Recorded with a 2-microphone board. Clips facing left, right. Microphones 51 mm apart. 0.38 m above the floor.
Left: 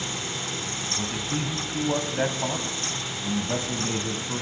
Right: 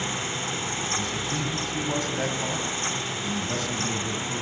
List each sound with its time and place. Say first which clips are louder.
1.0 s a man speaking: even; 20° left (ahead or behind), 2 m